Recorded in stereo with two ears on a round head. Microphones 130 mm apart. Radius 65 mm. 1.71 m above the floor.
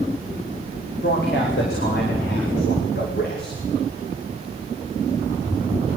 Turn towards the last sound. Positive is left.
turn(degrees=70)  # may be behind; listen again after turning